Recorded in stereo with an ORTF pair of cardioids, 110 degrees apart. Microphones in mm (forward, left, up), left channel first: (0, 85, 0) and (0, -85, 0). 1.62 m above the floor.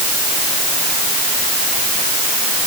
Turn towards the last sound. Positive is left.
No sound to turn to.